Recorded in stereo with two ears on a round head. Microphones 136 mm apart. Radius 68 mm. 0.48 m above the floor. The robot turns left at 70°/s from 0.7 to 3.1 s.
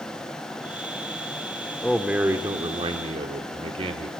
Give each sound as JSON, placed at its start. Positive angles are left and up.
{"t": 1.8, "sound": "a man speaking", "azimuth_deg": 10, "distance_m": 1.1}